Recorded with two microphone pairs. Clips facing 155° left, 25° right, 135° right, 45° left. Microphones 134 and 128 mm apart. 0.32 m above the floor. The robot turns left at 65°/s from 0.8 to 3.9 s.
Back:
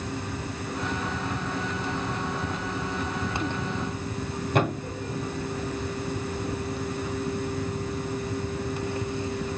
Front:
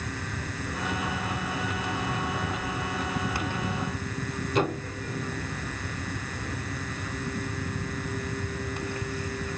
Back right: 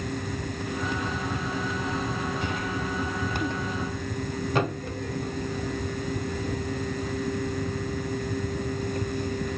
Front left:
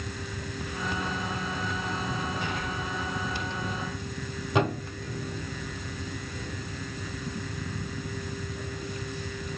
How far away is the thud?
About 1.9 m.